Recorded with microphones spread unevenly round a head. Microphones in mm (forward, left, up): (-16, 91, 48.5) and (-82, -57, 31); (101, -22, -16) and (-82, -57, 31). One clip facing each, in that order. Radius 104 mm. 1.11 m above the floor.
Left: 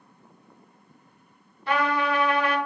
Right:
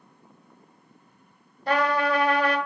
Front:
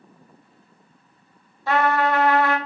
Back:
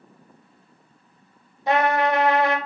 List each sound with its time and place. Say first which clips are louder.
1.7 s a trumpet: right 1 dB, even; 90° right, 0.9 m